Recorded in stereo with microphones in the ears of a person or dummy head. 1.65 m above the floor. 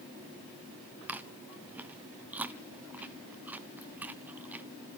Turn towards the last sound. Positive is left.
turn(degrees=-10)  # may be behind; listen again after turning